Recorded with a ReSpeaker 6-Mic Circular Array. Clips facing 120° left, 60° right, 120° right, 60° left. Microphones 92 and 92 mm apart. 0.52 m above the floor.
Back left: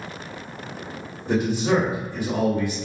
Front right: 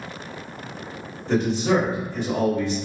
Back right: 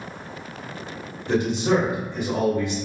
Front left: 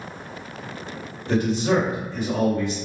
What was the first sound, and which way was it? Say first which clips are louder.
A man speaking: front right 1 dB, even; 170° right.